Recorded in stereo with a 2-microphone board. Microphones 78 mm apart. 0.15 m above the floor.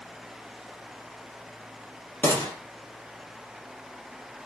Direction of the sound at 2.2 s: 25° left (ahead or behind).